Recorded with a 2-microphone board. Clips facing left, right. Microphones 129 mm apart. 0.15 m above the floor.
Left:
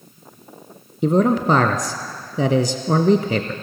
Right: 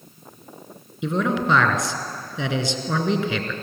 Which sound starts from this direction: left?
A man speaking, at 1.0 s.